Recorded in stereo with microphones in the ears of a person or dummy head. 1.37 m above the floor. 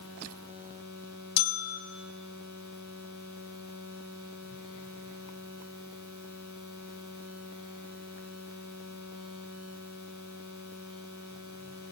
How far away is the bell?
About 0.7 m.